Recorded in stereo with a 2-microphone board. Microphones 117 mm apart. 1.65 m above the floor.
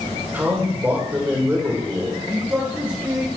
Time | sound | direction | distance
0.3 | a man speaking | 15° right (ahead or behind) | 5 m
2.3 | a man speaking | 15° right (ahead or behind) | 1.8 m